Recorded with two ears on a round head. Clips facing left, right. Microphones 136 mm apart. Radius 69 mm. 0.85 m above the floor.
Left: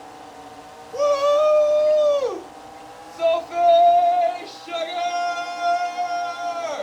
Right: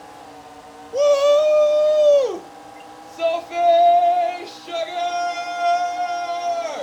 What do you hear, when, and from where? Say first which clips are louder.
0.9 s a shout: right 3 dB; 30° right (ahead or behind), 0.8 m; by 6.8 s 25° right (ahead or behind), 3.5 m